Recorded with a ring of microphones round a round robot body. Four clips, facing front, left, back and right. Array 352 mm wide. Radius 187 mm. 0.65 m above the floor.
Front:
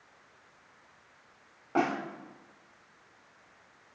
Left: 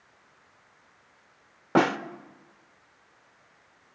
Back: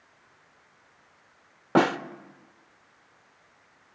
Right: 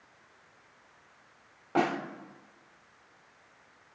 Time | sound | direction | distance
1.8 | a snare drum | 140° left | 0.7 m